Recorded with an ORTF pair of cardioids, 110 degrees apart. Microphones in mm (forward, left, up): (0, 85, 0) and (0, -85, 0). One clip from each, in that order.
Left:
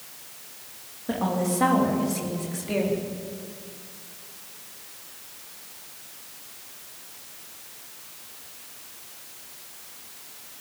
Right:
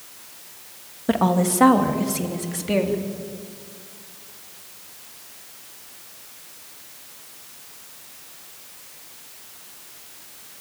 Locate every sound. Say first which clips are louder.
1.1 s a woman speaking: right 6 dB; 50° right, 2.5 m; by 3.0 s 35° right, 4 m